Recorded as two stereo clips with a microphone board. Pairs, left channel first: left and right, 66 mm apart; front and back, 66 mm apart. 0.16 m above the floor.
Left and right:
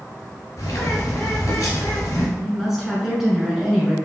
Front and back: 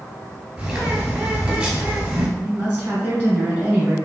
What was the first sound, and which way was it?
A bird, 105° left.